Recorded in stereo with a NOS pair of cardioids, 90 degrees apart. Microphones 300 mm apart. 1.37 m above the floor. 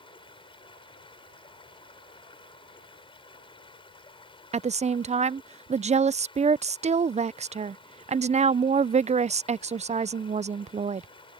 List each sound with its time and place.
0.0 s running water: 15° left
4.5 s a woman speaking: 25° right